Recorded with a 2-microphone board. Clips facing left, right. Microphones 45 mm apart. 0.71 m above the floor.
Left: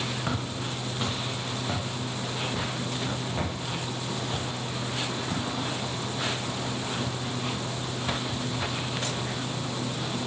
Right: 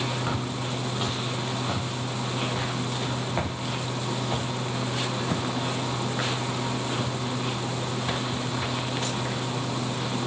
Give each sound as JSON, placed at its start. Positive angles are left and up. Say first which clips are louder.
{"t": 0.3, "sound": "footsteps", "louder": "right 2 dB", "side_deg": 0, "distance_m": 4.0}